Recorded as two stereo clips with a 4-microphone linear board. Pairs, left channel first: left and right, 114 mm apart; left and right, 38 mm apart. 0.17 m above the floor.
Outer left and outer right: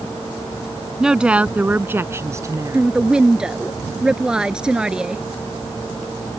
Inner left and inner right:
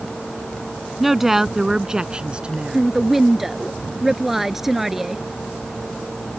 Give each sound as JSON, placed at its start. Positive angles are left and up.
{"t": 1.0, "sound": "a woman speaking", "side_deg": -5}
{"t": 2.7, "sound": "a woman speaking", "side_deg": -5}